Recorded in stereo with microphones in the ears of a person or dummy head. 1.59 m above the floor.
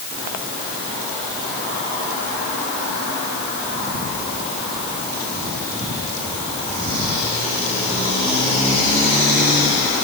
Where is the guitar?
No guitar in this recording.